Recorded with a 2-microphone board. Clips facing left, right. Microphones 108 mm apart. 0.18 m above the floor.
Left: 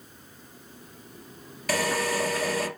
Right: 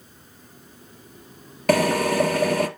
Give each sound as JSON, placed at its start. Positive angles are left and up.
{"t": 1.7, "sound": "a drill", "side_deg": -55, "distance_m": 2.0}